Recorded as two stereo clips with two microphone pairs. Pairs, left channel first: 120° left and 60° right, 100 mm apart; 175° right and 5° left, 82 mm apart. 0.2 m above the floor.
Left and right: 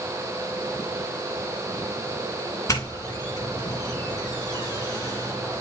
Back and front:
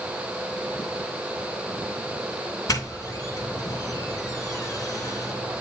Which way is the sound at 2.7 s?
165° left.